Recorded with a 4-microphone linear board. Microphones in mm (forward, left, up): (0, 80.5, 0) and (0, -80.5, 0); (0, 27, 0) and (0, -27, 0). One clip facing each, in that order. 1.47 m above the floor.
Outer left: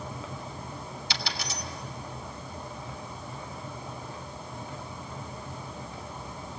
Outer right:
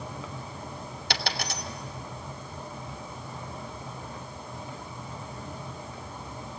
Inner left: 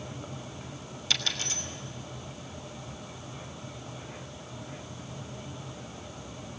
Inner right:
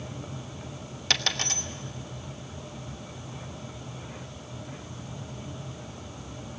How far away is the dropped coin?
About 2.5 m.